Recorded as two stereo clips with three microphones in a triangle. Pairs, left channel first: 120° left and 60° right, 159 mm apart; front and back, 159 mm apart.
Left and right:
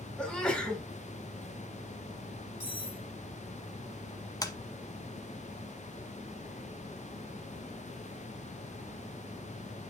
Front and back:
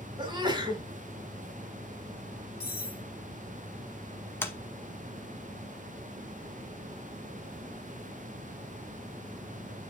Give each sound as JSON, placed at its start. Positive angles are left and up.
{"t": 0.2, "sound": "a sneeze", "azimuth_deg": -160, "distance_m": 1.8}
{"t": 2.6, "sound": "cutlery clinking", "azimuth_deg": -20, "distance_m": 5.0}
{"t": 4.4, "sound": "tapping", "azimuth_deg": 70, "distance_m": 0.9}